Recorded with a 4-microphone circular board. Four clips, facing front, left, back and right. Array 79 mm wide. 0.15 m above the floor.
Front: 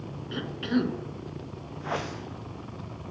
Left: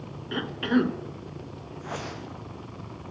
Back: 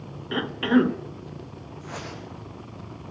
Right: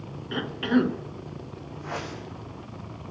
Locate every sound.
0.3 s a cough: straight behind, 1.3 m
1.8 s a whoosh: 5° left, 5 m